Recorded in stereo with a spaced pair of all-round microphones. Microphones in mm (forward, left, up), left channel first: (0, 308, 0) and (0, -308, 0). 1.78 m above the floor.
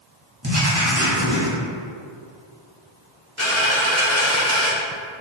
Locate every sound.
0.4 s writing: 20° right (ahead or behind), 1.3 m
3.4 s a dropped coin: 25° left (ahead or behind), 1.1 m